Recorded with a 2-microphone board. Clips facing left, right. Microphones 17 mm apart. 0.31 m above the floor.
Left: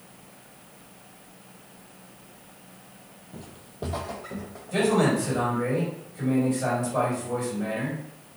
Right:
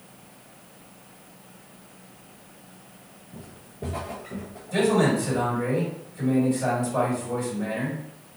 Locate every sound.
3.3 s footsteps: 60° left (ahead or behind), 0.5 m; by 5.5 s 45° left (ahead or behind), 1.6 m
4.7 s a man speaking: 5° left (ahead or behind), 2.0 m